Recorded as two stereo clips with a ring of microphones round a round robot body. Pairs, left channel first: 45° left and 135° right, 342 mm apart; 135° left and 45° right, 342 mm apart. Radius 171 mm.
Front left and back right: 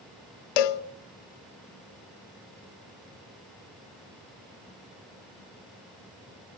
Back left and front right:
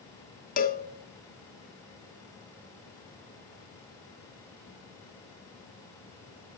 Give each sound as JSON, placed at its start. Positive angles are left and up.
{"t": 0.6, "sound": "a cowbell", "azimuth_deg": 65, "distance_m": 0.5}